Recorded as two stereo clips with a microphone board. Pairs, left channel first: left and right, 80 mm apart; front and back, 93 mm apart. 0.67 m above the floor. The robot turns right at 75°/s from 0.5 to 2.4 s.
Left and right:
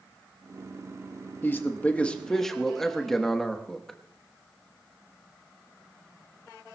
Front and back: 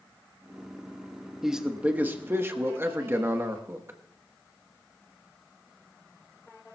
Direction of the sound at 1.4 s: 95° left.